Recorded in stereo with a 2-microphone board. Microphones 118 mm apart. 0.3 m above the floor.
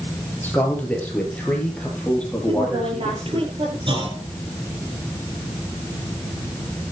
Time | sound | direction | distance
0.4 | a man speaking | 15° left (ahead or behind) | 5 m
2.5 | a woman speaking | 50° right (ahead or behind) | 7 m
3.9 | a clunk | 45° right (ahead or behind) | 4 m